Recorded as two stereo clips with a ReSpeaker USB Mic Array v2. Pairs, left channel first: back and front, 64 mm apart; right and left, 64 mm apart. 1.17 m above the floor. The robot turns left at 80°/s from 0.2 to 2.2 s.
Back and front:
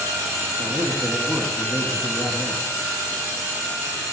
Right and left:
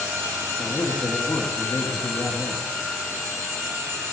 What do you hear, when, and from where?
0.6 s a man speaking: 15° right, 2.5 m; by 2.6 s 145° right, 2.5 m